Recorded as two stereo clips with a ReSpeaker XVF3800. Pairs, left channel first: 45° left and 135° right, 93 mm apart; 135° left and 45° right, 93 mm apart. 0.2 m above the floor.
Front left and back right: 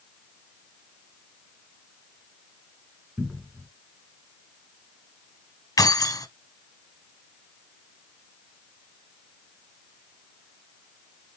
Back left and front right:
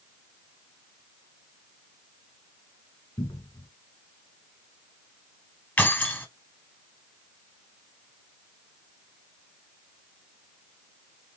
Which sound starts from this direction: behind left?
A cupboard door, at 3.2 s.